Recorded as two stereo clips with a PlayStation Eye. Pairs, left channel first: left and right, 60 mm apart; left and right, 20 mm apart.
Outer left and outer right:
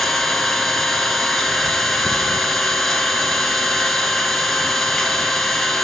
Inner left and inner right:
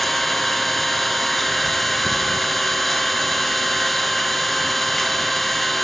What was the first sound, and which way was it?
An engine running, 5° left (ahead or behind).